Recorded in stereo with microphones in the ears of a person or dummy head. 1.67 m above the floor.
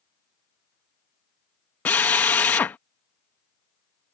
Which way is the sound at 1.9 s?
10° left (ahead or behind).